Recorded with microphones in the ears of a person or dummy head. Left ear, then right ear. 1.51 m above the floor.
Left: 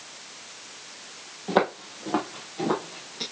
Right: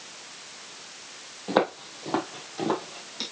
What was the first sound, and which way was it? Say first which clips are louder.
Footsteps: left 1 dB; 10° right (ahead or behind).